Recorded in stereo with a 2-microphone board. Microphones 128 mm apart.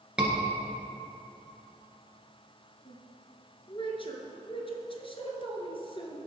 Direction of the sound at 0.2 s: 10° right (ahead or behind).